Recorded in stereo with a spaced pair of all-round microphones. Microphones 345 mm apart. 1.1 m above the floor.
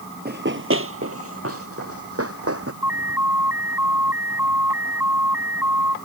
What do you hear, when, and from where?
0.2 s running footsteps: 30° right (ahead or behind); by 2.7 s 40° right (ahead or behind)
2.8 s an alarm: 5° right (ahead or behind)